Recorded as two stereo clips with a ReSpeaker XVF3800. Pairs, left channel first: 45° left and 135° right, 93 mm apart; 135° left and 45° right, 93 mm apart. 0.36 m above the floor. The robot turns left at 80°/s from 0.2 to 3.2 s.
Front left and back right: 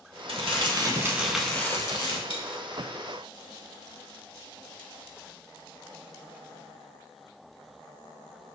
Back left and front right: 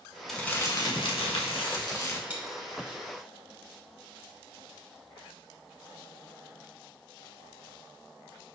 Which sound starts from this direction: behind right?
Crumpling, at 0.3 s.